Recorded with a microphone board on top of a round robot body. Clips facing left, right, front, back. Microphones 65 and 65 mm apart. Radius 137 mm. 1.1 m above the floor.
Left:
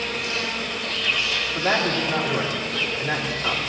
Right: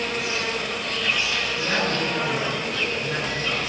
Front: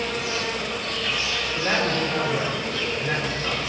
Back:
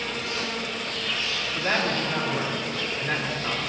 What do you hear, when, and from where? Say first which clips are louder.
0.0 s an insect: right 1 dB, front 3 dB; 15° right, 1.5 m
1.6 s a man speaking: left 4 dB, front 2 dB; 105° left, 3 m